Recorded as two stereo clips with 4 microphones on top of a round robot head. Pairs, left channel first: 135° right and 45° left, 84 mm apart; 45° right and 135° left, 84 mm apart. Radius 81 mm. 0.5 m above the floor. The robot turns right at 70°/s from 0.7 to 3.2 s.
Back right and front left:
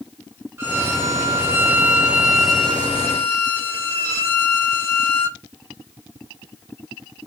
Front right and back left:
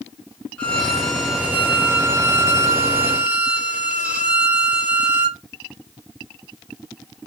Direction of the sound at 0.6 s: 20° left.